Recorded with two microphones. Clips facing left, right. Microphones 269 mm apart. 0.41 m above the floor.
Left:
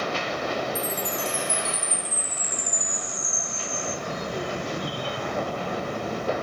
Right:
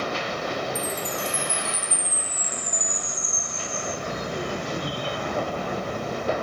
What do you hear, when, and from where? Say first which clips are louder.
0.8 s a chime: even; 20° left (ahead or behind), 3.5 m